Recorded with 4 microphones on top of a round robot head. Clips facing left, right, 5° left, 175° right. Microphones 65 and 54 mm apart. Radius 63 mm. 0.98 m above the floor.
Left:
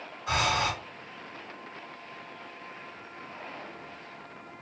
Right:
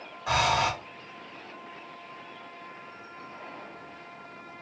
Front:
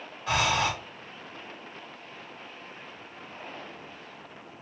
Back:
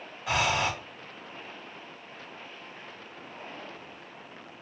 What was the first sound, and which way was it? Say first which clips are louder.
Breathing: right 3 dB, front 1 dB; 90° right.